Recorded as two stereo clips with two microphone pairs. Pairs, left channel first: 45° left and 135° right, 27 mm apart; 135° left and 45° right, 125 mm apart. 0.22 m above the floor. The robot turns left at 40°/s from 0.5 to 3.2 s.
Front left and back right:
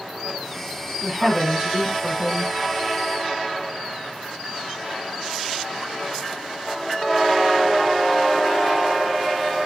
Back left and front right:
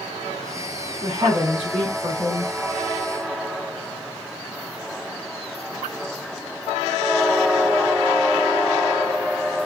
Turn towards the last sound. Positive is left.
turn(degrees=-125)